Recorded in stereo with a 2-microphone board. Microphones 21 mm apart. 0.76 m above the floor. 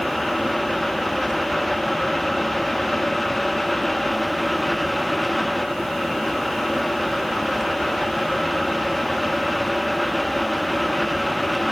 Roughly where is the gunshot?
No gunshot in this recording.